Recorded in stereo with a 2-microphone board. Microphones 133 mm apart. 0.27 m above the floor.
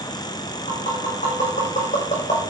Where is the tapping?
60° left (ahead or behind), 8.5 m.